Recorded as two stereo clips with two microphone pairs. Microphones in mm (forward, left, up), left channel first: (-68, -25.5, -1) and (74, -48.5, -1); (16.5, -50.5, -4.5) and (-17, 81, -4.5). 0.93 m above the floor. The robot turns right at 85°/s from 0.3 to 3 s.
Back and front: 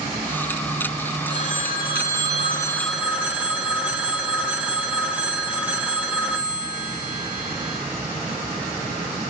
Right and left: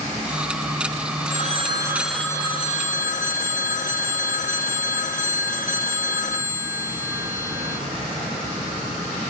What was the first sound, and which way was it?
A phone ringing, 125° left.